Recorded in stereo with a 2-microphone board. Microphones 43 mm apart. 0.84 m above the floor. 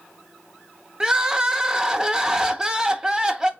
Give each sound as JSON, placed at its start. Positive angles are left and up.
{"t": 1.0, "sound": "crying", "side_deg": -20, "distance_m": 0.6}